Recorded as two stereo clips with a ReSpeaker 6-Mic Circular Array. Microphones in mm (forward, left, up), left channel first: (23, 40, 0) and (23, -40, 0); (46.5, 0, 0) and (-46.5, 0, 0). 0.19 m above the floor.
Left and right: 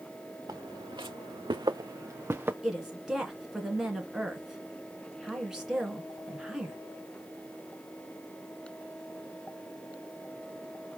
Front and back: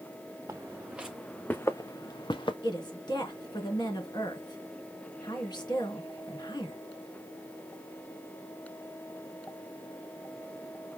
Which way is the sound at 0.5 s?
120° right.